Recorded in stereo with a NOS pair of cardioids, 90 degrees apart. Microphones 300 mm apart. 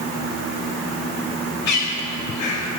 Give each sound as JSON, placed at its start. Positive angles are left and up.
{"t": 1.7, "sound": "a bird", "azimuth_deg": 70, "distance_m": 8.0}